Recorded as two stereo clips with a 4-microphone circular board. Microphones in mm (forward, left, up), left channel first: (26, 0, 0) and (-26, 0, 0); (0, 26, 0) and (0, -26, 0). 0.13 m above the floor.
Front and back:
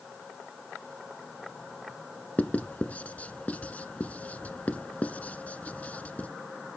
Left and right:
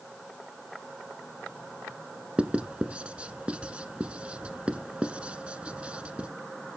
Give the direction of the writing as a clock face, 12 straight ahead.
1 o'clock.